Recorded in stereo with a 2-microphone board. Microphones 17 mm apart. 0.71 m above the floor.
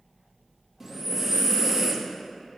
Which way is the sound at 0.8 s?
25° right (ahead or behind).